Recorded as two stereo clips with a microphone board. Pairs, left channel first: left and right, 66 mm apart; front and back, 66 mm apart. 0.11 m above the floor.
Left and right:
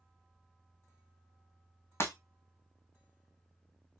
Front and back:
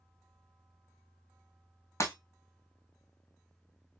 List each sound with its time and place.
2.0 s breaking glass: 45° left, 1.2 m